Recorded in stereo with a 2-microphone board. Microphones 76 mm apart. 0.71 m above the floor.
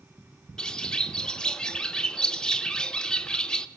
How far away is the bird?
About 0.5 m.